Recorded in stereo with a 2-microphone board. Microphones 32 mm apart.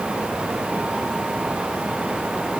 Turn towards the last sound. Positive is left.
No sound to turn to.